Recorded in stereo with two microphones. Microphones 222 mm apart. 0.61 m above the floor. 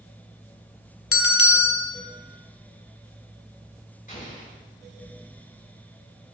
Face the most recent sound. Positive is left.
turn(degrees=40)  # may be behind; listen again after turning